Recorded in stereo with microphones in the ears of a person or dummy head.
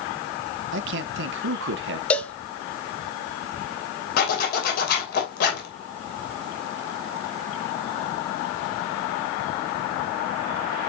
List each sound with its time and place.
0.7 s a man speaking: 75° right (ahead or behind), 0.8 m
2.1 s a cowbell: 5° left (ahead or behind), 0.8 m
4.2 s a zipper: 60° left (ahead or behind), 3 m